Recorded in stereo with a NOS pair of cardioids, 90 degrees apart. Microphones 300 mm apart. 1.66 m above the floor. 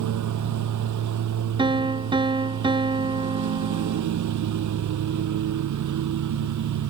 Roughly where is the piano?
Ahead.